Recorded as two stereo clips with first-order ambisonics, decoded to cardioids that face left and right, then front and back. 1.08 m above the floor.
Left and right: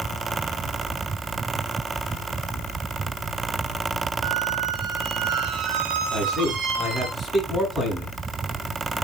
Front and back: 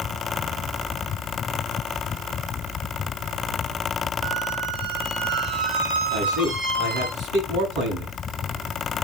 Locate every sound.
4.2 s a squeak: 135° right, 3 m
6.1 s a man speaking: 170° right, 7 m